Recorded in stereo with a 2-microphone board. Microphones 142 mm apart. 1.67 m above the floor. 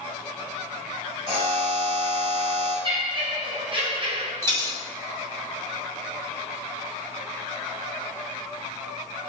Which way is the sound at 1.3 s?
45° right (ahead or behind).